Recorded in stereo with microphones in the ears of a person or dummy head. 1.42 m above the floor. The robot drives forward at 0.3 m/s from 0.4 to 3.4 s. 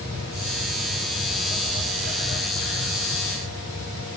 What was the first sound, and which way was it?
Only background noise.